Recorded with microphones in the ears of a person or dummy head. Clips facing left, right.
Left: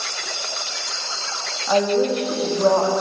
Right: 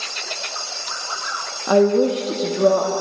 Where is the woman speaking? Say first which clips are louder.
Right 4 dB; 60° right (ahead or behind), 1.0 m; by 2.9 s 30° right (ahead or behind), 1.3 m.